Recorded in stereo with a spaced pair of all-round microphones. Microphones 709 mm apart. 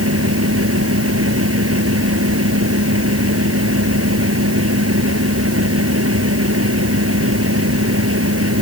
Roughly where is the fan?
Centre.